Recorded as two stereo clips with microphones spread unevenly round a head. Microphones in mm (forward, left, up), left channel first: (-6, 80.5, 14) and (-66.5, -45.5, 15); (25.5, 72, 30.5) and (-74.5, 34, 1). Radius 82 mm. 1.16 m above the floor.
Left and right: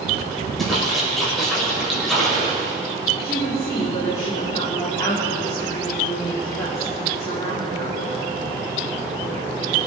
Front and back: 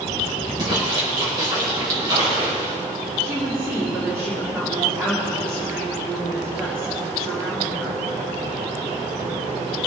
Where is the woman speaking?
130° left, 3 m.